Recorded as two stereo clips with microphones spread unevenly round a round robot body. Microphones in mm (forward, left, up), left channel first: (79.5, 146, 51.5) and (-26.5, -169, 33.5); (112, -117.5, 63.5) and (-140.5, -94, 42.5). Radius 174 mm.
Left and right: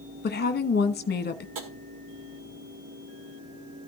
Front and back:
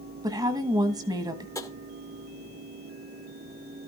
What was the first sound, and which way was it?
A woman speaking, 115° left.